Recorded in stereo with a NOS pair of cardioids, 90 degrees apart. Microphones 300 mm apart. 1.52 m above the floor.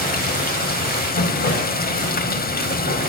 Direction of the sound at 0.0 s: 30° left.